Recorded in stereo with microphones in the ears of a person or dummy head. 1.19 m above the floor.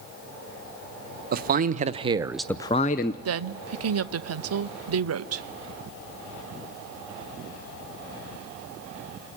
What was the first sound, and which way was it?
A man speaking, 50° right (ahead or behind).